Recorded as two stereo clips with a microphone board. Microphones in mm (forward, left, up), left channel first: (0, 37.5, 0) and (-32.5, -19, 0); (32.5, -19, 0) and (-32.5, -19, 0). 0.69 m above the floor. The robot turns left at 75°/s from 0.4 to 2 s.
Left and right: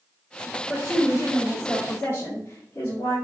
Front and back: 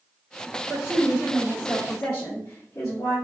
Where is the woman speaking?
130° left, 1.6 m; by 3.1 s 30° left, 1.6 m.